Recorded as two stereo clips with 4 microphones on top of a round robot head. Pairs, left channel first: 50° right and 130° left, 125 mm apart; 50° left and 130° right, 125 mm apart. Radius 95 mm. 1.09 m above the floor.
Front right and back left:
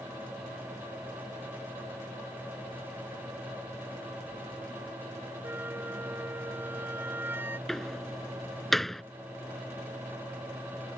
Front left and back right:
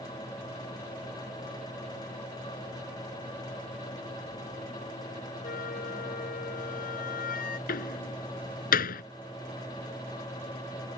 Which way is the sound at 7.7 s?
40° left.